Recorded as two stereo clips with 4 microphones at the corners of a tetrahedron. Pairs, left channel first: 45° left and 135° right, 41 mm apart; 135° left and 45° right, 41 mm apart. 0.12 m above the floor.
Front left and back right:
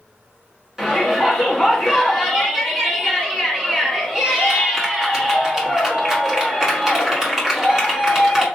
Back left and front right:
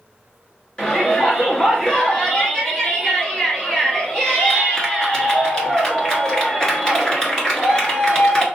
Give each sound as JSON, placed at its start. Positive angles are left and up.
{"t": 0.8, "sound": "a shout", "azimuth_deg": 170, "distance_m": 1.1}